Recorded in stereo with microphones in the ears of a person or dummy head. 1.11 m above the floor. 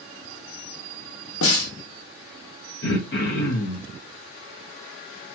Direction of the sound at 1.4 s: 75° left (ahead or behind).